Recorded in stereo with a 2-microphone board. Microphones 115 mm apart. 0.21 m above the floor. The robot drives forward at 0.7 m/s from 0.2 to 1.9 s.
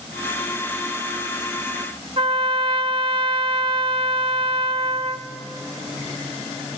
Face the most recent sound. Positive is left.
turn(degrees=-50)  # may be behind; listen again after turning